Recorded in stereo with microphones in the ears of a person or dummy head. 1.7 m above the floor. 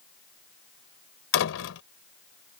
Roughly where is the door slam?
Left.